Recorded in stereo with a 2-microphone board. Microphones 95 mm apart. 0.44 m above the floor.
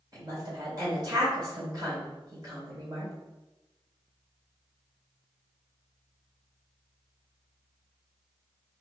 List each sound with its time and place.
0.1 s a woman speaking: 45° right (ahead or behind), 1.8 m